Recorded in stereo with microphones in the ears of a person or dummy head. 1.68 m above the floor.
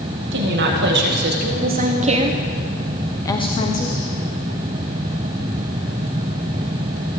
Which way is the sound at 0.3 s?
60° right (ahead or behind).